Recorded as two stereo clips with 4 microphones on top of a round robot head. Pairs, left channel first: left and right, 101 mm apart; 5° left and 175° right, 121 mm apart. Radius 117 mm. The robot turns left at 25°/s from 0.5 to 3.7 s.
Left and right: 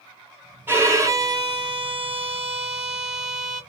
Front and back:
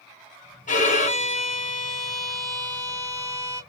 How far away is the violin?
About 0.9 m.